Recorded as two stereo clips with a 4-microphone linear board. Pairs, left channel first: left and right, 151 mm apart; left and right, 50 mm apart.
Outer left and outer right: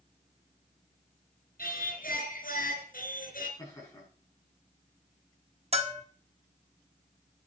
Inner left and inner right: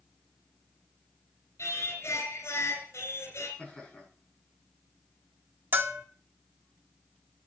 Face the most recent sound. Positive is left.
turn(degrees=-45)  # may be behind; listen again after turning